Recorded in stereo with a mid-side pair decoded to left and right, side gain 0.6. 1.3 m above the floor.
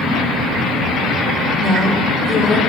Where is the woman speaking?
25° left, 3.5 m; by 2.6 s 15° left, 3.5 m.